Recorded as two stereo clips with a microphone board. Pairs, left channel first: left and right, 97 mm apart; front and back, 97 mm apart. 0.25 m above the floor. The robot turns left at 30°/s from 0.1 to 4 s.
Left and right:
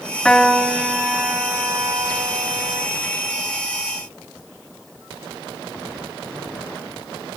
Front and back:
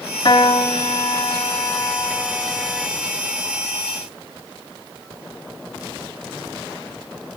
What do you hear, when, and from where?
0.2 s a piano: 10° left, 0.9 m; by 2.9 s 70° right, 0.9 m